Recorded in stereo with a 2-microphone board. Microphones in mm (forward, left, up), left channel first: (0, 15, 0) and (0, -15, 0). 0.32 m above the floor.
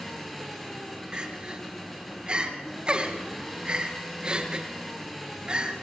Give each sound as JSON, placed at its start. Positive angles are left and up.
{"t": 0.0, "sound": "an engine running", "side_deg": 5, "distance_m": 5.0}
{"t": 1.1, "sound": "crying", "side_deg": -35, "distance_m": 3.0}